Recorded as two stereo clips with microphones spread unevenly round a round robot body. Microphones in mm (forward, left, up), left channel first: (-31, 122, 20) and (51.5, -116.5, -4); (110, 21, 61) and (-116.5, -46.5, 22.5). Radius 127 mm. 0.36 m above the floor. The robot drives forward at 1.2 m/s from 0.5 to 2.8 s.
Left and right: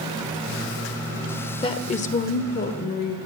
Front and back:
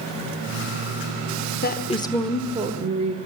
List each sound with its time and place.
1.6 s a woman speaking: 40° left, 1.3 m; by 3.1 s 155° left, 1.5 m